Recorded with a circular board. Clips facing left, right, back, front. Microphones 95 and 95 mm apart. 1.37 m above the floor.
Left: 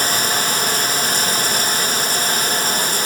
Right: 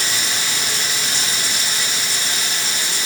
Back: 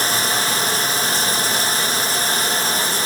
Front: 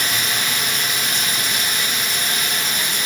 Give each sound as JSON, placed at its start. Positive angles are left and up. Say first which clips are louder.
{"t": 0.0, "sound": "running water", "louder": "left 5 dB, back 3 dB", "azimuth_deg": 130, "distance_m": 0.8}